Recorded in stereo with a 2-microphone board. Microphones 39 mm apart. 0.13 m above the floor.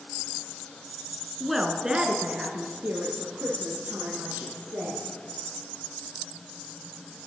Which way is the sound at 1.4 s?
Centre (ahead or behind).